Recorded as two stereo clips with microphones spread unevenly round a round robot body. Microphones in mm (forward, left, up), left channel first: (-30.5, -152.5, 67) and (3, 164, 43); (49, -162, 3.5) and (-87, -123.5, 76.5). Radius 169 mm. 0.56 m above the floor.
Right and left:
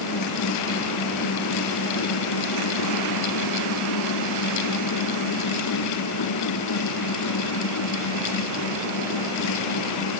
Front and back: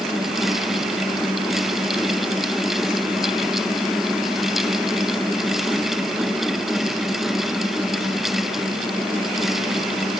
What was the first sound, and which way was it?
Only background noise.